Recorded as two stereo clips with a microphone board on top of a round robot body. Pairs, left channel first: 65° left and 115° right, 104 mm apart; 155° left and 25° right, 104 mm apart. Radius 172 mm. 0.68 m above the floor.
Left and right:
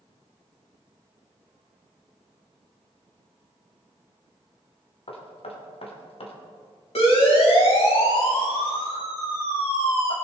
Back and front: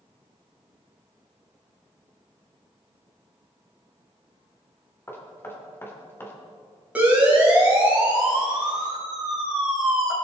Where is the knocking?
90° left, 2.5 m.